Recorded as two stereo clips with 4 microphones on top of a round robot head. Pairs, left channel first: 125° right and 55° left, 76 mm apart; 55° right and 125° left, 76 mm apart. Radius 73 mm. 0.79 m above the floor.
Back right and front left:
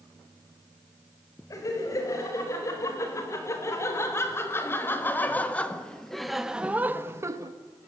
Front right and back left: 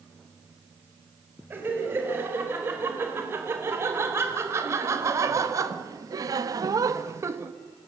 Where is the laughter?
170° right, 6 m; by 7.5 s 75° left, 1.6 m.